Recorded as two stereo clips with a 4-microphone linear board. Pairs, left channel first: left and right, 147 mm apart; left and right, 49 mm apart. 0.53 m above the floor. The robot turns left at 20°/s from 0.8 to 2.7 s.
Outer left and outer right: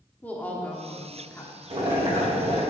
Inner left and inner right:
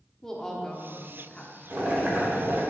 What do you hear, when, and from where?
0.2 s a woman speaking: 10° left (ahead or behind), 1.2 m; by 1.5 s 20° left (ahead or behind), 1.2 m
1.7 s boiling: 40° right (ahead or behind), 1.9 m; by 2.6 s 55° right (ahead or behind), 1.9 m